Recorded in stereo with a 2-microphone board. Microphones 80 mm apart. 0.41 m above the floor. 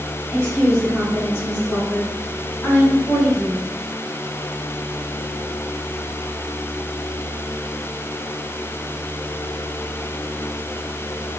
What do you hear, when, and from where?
0.3 s a woman speaking: 20° right (ahead or behind), 1.7 m; by 3.6 s 30° left (ahead or behind), 1.7 m